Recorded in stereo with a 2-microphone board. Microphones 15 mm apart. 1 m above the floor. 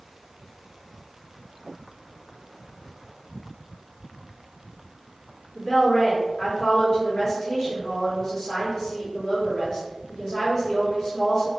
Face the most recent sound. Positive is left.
turn(degrees=45)  # may be behind; listen again after turning